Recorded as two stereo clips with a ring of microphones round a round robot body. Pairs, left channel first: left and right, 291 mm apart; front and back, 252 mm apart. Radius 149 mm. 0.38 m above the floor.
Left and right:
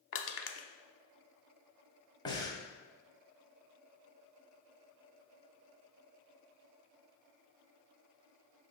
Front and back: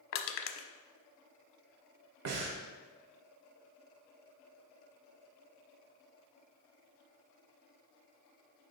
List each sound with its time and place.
0.1 s crushing: 40° left, 0.7 m
2.2 s breathing: 165° left, 1.0 m